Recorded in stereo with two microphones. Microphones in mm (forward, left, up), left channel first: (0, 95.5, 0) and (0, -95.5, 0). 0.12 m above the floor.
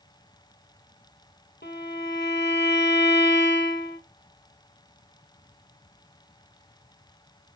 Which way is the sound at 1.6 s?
65° left (ahead or behind).